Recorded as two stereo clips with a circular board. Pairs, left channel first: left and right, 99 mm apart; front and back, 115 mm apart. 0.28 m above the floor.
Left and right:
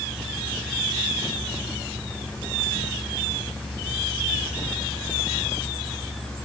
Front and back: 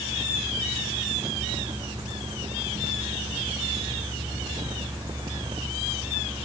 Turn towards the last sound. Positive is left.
No sound to turn to.